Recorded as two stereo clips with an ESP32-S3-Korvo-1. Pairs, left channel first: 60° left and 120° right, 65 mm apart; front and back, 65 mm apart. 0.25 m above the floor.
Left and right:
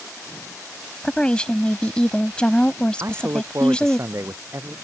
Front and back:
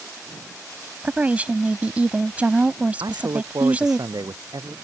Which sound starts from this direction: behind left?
A woman speaking, at 1.0 s.